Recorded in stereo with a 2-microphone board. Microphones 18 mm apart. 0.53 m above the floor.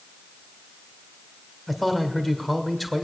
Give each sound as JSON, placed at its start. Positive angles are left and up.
{"t": 1.7, "sound": "a man speaking", "side_deg": 0, "distance_m": 1.9}